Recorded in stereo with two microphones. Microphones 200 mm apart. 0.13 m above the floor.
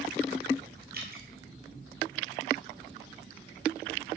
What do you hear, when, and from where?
0.9 s dripping: 45° right (ahead or behind), 1.7 m